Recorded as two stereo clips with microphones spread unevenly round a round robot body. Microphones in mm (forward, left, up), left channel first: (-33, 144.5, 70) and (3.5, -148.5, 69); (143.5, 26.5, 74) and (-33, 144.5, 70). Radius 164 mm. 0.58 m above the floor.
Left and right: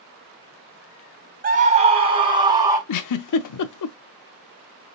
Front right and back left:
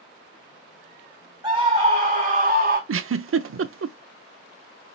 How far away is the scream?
About 2 m.